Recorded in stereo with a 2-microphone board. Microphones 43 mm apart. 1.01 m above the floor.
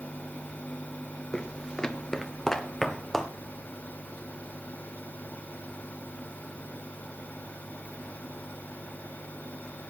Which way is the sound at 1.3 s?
20° left (ahead or behind).